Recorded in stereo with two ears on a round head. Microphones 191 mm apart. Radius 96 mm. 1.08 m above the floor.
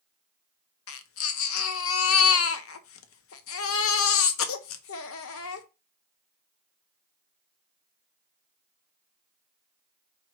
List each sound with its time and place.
0.9 s a baby crying: 70° left (ahead or behind), 0.8 m